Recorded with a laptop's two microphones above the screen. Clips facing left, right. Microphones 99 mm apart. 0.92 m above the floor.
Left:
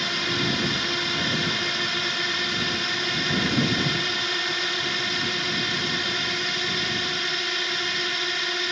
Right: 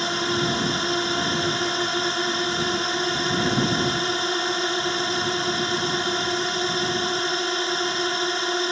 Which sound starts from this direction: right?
A drone, at 0.0 s.